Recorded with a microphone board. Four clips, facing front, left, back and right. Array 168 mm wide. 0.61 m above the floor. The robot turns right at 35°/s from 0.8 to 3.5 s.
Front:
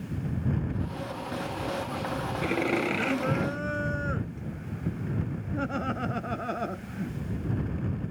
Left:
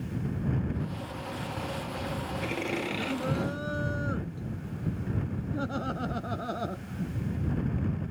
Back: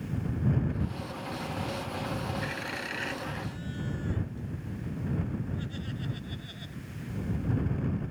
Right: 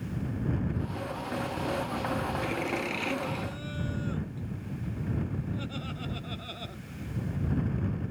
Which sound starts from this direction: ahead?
Laughter, at 2.4 s.